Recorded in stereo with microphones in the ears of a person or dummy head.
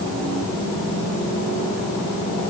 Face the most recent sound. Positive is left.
No sound to turn to.